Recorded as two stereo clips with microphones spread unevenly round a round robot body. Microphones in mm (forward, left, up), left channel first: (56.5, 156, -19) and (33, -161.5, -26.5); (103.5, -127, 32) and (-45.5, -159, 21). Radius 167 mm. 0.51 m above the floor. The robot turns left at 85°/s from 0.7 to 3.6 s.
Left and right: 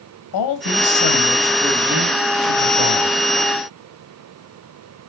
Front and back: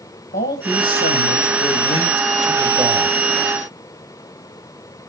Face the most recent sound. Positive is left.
turn(degrees=-175)